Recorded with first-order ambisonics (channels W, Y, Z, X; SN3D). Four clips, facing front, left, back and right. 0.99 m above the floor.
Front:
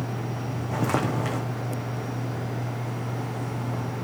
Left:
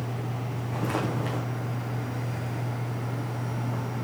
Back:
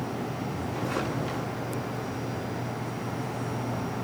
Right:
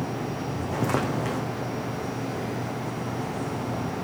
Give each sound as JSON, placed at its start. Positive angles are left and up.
{"t": 0.7, "sound": "footsteps", "azimuth_deg": -35, "distance_m": 4.0}